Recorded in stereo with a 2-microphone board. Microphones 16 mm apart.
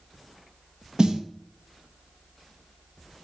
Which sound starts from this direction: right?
A snare drum, at 1.0 s.